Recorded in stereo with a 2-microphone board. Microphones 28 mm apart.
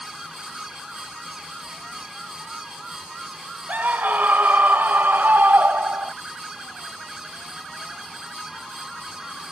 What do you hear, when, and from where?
3.7 s a scream: 75° right (ahead or behind); by 6.1 s 85° right